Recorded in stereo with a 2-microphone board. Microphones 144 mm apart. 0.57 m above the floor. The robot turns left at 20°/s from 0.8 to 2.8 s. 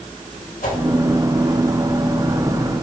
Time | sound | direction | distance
0.6 | a whoosh | 70° left (ahead or behind) | 2.5 m